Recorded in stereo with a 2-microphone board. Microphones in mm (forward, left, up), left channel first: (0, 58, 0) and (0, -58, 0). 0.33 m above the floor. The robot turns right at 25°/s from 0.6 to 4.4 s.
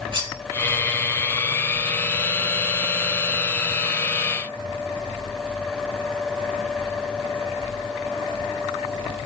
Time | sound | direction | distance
0.1 | cutlery clinking | 45° right (ahead or behind) | 5.5 m